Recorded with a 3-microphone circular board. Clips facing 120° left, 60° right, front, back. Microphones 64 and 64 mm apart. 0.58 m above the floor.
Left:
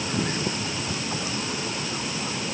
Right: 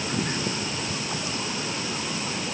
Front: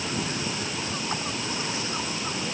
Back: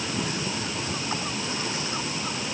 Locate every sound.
Only background noise.